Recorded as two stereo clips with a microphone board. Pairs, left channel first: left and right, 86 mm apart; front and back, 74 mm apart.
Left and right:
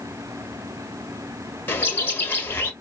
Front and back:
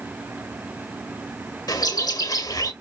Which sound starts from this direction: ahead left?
A bird, at 1.7 s.